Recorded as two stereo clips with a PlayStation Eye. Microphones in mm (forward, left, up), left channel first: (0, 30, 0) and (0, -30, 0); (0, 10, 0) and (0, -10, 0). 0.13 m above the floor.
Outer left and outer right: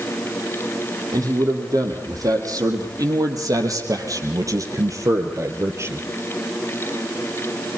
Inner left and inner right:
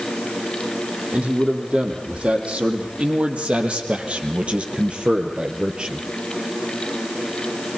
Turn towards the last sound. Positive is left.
turn(degrees=-45)  # may be behind; listen again after turning